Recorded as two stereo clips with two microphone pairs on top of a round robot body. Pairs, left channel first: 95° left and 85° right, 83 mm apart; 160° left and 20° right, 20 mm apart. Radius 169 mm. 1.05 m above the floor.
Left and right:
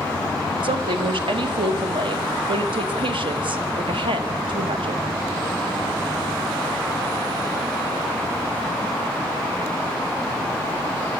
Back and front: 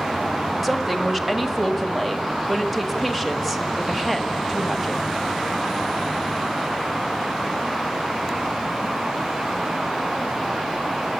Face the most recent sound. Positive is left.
turn(degrees=-105)